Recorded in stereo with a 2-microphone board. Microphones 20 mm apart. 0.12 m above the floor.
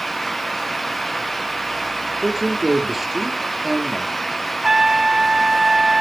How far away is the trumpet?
About 0.9 m.